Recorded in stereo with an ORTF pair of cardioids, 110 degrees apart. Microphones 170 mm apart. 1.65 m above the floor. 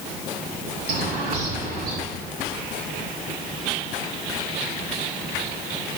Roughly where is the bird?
Ahead right.